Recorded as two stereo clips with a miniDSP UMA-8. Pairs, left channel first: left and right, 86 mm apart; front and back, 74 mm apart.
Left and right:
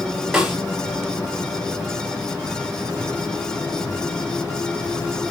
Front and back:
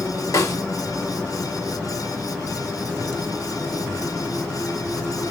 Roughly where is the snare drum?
Ahead.